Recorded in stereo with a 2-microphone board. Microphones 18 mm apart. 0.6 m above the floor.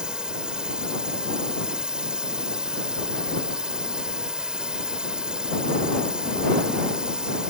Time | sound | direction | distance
0.0 | a drone | 60° right (ahead or behind) | ?